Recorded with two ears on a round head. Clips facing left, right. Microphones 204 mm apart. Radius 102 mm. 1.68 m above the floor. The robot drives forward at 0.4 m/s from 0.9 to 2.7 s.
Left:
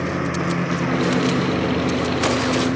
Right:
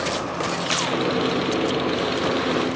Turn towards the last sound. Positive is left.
turn(degrees=20)  # may be behind; listen again after turning